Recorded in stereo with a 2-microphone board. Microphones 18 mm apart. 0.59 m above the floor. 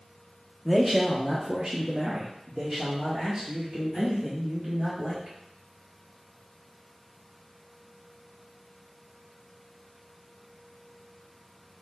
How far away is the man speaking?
About 1.0 m.